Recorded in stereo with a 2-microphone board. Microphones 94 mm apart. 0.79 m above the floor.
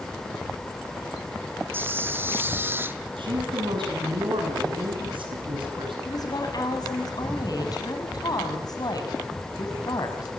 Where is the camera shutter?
25° right (ahead or behind), 1.1 m.